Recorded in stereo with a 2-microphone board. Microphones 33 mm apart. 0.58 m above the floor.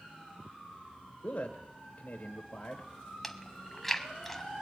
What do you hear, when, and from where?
1.2 s a man speaking: 55° left (ahead or behind), 1.8 m
3.2 s chewing: 5° left (ahead or behind), 1.2 m